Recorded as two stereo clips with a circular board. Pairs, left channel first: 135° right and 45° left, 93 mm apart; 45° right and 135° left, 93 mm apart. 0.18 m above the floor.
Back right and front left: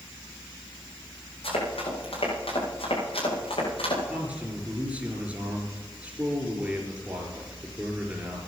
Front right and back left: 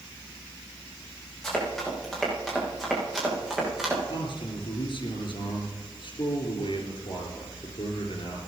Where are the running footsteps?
130° right, 9.5 m; by 4.0 s 140° right, 8.5 m.